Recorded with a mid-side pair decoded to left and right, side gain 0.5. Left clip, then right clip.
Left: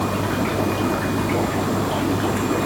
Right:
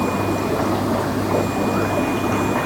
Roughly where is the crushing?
No crushing in this recording.